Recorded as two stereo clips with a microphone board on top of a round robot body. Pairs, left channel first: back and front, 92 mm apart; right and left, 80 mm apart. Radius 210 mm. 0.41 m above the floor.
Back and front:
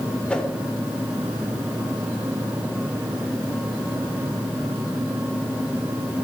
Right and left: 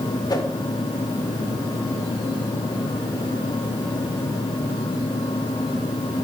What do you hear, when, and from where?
0.3 s a whoosh: 105° right, 2.5 m